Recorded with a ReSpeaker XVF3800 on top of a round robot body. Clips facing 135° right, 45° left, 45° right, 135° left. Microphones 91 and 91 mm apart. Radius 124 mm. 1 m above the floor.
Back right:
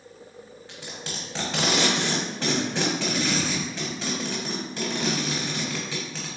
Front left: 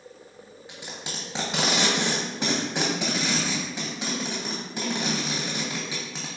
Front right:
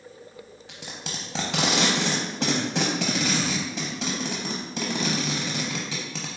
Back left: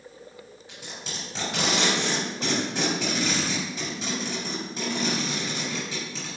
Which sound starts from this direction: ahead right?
Tape being pulled, at 0.7 s.